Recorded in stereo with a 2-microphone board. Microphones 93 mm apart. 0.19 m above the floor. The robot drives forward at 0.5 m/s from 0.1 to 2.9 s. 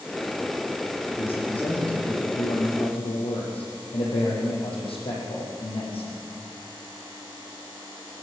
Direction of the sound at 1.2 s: 80° left.